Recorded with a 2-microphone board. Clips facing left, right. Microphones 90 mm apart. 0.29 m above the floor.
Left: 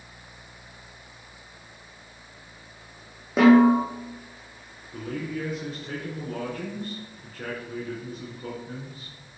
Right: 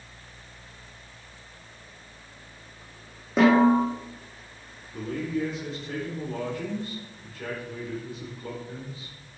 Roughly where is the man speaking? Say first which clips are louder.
Right 2 dB; left.